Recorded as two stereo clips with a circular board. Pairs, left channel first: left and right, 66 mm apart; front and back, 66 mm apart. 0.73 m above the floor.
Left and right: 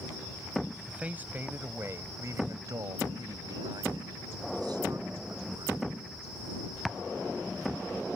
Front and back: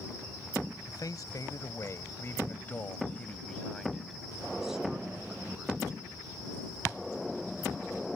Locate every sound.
0.9 s a man speaking: 20° right; by 5.8 s 105° right